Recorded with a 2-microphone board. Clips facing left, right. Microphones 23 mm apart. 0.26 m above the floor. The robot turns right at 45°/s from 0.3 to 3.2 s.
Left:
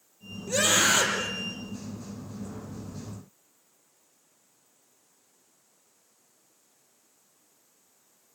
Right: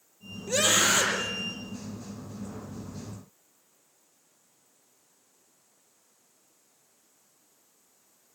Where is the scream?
15° right, 8 m; by 1.3 s 20° left, 8 m.